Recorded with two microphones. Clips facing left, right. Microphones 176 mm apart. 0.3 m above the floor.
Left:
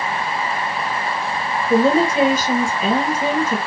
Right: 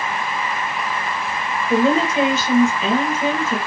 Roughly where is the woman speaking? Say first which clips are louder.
Left 2 dB; centre.